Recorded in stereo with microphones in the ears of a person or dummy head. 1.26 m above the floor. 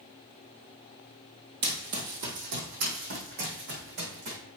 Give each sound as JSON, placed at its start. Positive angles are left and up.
{"t": 1.6, "sound": "running footsteps", "side_deg": -45, "distance_m": 1.8}